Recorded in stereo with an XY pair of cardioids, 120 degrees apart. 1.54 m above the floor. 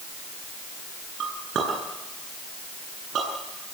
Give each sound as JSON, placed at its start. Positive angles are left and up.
{"t": 1.2, "sound": "a clink", "azimuth_deg": -55, "distance_m": 9.5}